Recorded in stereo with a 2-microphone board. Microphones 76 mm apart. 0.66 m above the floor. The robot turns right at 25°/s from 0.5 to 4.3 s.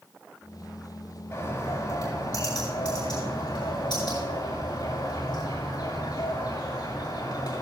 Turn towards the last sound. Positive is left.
turn(degrees=105)